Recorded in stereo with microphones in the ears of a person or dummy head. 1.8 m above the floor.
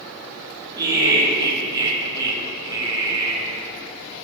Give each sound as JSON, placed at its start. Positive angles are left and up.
{"t": 0.8, "sound": "laughter", "side_deg": -20, "distance_m": 2.5}